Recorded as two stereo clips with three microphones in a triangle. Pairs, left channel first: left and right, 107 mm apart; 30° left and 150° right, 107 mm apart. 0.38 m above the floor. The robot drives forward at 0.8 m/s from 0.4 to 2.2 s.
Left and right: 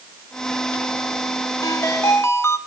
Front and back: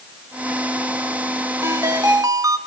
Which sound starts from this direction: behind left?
A ringtone, at 1.6 s.